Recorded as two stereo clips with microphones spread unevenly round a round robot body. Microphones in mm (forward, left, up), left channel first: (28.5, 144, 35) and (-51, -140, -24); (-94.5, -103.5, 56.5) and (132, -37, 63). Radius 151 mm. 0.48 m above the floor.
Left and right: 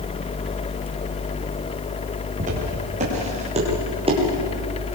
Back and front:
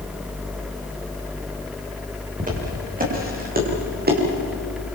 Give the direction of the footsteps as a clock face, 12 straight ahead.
1 o'clock.